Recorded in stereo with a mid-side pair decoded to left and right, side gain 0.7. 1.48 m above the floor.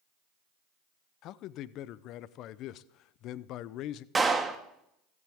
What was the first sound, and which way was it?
A man speaking, 55° left.